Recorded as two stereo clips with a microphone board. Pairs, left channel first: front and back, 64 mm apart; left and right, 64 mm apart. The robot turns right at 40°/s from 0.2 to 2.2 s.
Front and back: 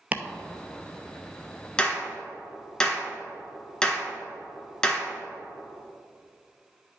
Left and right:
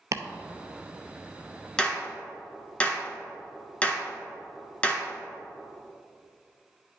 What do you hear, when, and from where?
0.1 s chopping: 115° right, 0.6 m
1.8 s a clap: 40° left, 1.4 m; by 5.1 s 60° left, 1.4 m